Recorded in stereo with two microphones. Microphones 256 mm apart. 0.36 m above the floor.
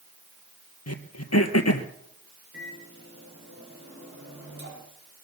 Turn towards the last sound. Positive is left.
turn(degrees=-55)  # may be behind; listen again after turning